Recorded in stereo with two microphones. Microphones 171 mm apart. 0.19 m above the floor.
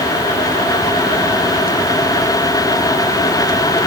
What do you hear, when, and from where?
Only background noise.